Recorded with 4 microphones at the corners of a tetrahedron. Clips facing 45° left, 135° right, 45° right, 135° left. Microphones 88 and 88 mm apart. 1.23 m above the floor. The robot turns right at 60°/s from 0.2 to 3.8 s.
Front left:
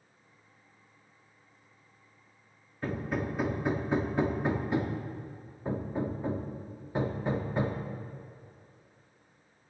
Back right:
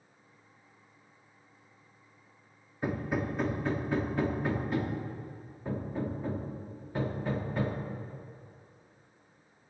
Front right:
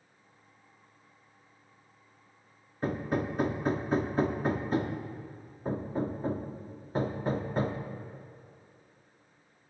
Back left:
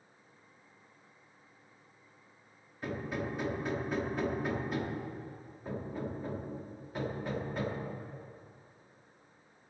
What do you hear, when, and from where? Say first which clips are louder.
2.8 s hammering: back right 1 dB, front right 6 dB; 70° right, 0.8 m; by 7.8 s 10° right, 0.8 m